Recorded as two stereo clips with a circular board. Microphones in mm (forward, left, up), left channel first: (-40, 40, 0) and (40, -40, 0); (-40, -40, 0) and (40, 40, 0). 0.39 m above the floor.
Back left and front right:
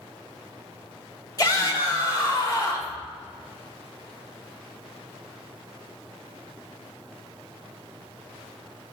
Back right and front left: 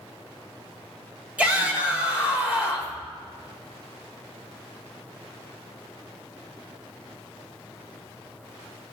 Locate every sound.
1.4 s a shout: 115° left, 1.6 m